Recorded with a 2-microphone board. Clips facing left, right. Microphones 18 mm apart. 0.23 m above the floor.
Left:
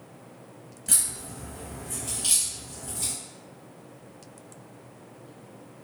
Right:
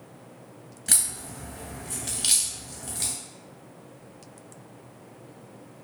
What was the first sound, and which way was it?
A crack, 50° right (ahead or behind).